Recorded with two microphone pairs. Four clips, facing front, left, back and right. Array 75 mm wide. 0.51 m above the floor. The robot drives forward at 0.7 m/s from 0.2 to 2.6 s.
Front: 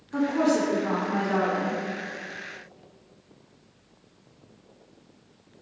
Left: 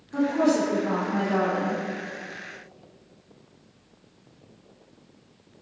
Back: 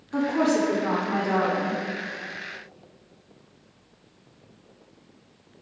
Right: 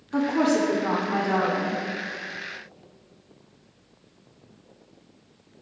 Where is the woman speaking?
115° right, 1.2 m; by 1.8 s 155° right, 1.9 m.